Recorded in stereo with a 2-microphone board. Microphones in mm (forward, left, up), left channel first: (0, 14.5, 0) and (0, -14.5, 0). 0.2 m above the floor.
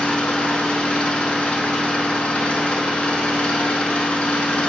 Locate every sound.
0.0 s an engine running: 50° left (ahead or behind), 0.7 m